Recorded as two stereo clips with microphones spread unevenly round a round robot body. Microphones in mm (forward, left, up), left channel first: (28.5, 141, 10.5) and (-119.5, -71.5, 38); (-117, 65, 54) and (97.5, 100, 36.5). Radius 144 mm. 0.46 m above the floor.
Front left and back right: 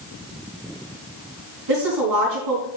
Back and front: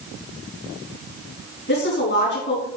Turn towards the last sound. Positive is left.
turn(degrees=-120)